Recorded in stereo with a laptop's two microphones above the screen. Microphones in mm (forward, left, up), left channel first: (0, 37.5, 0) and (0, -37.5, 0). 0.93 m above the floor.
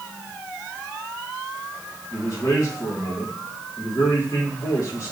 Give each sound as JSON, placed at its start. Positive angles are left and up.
{"t": 2.1, "sound": "a man speaking", "side_deg": 50, "distance_m": 2.5}